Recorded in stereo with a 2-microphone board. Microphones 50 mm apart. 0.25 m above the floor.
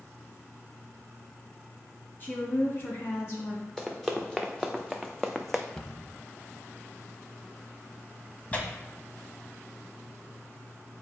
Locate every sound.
2.2 s a woman speaking: 40° left (ahead or behind), 2.5 m; by 3.6 s 55° left (ahead or behind), 2.5 m
3.8 s running footsteps: 5° left (ahead or behind), 1.5 m
5.8 s a cupboard door: 15° left (ahead or behind), 0.9 m
8.5 s tearing paper: 25° left (ahead or behind), 1.0 m